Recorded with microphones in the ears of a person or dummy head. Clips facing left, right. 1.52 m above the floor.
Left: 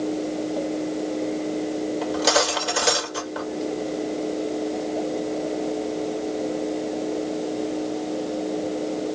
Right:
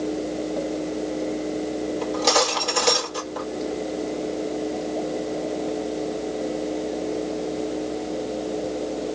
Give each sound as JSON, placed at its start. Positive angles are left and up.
{"t": 2.0, "sound": "cutlery clinking", "side_deg": 10, "distance_m": 1.7}